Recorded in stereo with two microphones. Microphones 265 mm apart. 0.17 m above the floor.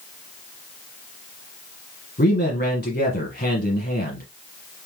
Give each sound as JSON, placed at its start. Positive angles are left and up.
{"t": 2.2, "sound": "a man speaking", "side_deg": 35, "distance_m": 1.3}